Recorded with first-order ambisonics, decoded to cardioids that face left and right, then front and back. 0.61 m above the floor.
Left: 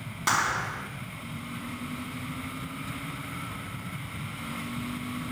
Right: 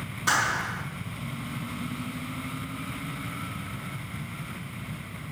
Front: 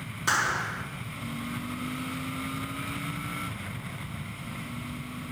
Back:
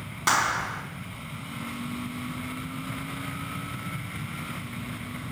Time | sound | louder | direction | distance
0.3 | a clap | right 1 dB, back 2 dB | 150° left | 4 m